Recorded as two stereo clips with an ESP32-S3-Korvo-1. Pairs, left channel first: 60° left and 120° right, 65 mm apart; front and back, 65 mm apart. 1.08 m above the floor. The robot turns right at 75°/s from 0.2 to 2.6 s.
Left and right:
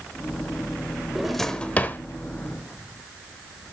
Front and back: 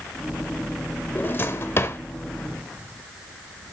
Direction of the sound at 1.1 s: 40° right.